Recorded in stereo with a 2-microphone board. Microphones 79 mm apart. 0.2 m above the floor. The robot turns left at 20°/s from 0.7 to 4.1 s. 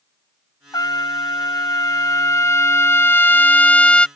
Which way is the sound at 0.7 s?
85° left.